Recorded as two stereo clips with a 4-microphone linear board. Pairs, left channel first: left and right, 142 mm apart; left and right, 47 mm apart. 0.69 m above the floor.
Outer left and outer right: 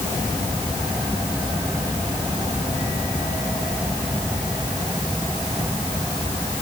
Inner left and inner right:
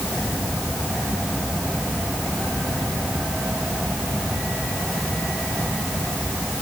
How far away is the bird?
I don't hear a bird.